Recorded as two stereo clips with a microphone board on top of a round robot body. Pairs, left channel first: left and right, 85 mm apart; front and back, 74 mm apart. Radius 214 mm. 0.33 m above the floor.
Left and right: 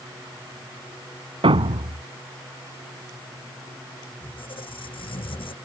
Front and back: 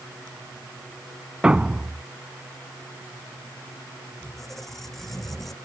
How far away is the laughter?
No laughter in this recording.